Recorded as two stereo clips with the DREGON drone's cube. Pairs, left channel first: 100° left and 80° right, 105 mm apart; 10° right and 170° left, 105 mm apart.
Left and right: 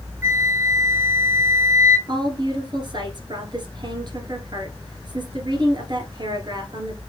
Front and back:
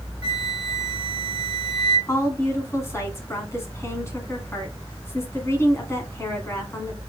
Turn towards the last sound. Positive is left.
turn(degrees=-65)